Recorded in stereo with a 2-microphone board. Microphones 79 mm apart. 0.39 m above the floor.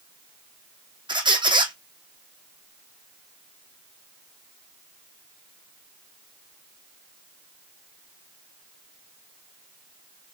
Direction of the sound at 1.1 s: 80° right.